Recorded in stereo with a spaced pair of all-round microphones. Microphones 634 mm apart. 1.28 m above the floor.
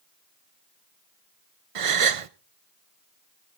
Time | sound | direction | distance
1.8 | a gasp | 60° right (ahead or behind) | 0.6 m